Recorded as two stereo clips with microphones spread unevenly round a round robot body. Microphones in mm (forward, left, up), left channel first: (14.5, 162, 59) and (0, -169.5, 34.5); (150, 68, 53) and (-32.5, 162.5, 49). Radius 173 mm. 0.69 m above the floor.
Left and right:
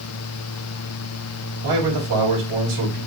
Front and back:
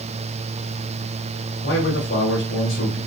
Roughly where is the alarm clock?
No alarm clock in this recording.